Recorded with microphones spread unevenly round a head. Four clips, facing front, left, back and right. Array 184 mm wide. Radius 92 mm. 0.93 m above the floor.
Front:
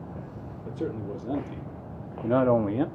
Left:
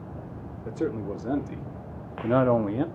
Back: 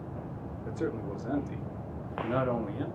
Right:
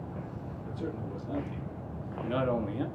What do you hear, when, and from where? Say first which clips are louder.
0.7 s a man speaking: left 9 dB, front 1 dB; 75° left, 2.5 m; by 2.9 s 30° left, 1.3 m